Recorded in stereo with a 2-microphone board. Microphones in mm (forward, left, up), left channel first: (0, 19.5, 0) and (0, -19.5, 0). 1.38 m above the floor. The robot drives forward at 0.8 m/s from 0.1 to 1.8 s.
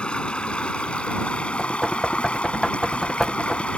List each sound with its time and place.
0.0 s running water: 25° left (ahead or behind); by 3.8 s 30° left (ahead or behind)
1.6 s knocking: 10° left (ahead or behind)